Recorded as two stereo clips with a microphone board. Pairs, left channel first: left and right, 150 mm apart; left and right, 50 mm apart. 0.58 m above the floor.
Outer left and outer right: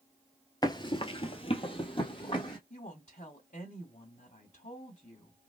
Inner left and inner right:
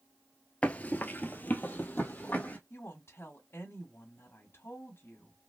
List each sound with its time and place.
0.6 s running footsteps: 25° left (ahead or behind), 0.6 m; by 2.6 s 35° left (ahead or behind), 1.5 m
2.7 s a woman speaking: 60° left (ahead or behind), 1.3 m